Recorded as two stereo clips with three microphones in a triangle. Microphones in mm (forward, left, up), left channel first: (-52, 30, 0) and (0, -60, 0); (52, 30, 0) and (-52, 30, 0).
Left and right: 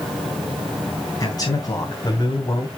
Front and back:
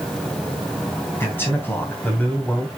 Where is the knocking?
No knocking in this recording.